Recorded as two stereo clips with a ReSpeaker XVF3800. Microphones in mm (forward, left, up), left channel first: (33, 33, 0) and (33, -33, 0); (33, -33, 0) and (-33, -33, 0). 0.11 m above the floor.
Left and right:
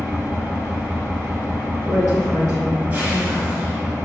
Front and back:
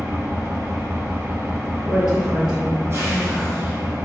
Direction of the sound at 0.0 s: 145° right.